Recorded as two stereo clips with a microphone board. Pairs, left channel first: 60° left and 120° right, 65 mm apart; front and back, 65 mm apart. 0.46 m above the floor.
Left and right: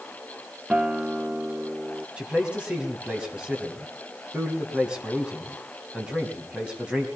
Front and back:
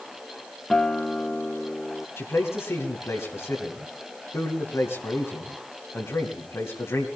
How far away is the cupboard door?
I don't hear a cupboard door.